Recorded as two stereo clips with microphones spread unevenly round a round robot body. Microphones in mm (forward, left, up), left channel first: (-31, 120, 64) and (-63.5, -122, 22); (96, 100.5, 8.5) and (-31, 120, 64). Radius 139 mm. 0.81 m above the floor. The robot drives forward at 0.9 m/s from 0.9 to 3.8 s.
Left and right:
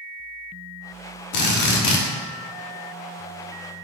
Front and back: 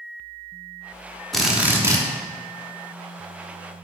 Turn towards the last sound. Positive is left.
turn(degrees=145)